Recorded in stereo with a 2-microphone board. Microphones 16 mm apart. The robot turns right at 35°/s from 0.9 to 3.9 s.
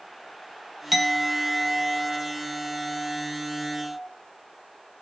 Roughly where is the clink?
Centre.